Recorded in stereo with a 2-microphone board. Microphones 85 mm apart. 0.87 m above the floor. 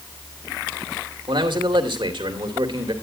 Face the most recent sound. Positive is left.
turn(degrees=-80)